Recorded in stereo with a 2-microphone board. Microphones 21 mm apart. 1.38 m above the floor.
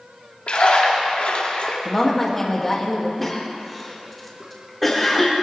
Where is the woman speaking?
15° left (ahead or behind), 2.5 m.